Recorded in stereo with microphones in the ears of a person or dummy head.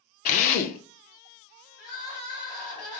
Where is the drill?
45° left (ahead or behind), 0.5 m.